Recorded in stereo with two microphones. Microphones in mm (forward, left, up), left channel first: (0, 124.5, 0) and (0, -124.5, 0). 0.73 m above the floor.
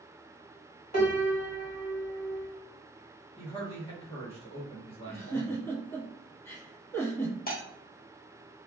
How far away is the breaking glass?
About 0.8 m.